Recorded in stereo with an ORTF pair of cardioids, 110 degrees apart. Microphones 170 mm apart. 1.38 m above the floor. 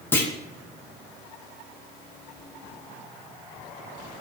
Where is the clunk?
10° left, 0.5 m.